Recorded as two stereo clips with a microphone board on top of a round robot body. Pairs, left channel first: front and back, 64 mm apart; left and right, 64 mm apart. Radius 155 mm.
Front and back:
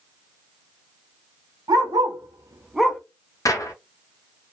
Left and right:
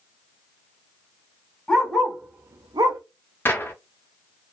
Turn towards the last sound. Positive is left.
turn(degrees=30)